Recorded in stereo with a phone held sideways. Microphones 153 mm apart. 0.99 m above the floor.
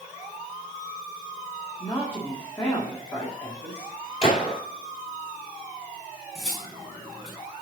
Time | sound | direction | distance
1.8 | a woman speaking | 15° left (ahead or behind) | 1.9 m
4.2 | a gunshot | 40° left (ahead or behind) | 2.5 m
6.3 | cutlery clinking | centre (ahead or behind) | 4.5 m